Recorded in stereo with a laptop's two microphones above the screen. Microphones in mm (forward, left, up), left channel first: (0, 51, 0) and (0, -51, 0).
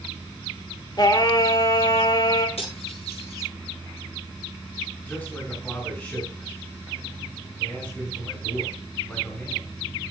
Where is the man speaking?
20° left (ahead or behind), 4.5 m.